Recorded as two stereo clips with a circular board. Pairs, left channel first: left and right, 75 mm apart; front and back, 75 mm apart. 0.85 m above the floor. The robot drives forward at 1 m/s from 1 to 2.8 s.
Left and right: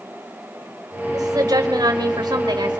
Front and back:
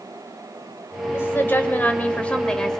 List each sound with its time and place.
1.1 s a woman speaking: 55° right, 4 m; by 2.8 s 85° right, 3.5 m